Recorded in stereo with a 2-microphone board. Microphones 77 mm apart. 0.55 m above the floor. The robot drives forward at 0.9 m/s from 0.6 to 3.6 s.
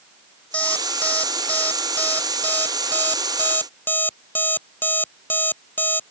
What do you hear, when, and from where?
0.5 s an alarm clock: 20° left (ahead or behind); by 6.0 s 25° left (ahead or behind)